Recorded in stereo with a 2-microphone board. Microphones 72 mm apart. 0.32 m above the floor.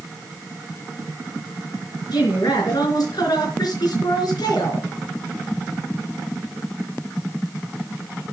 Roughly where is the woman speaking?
Left.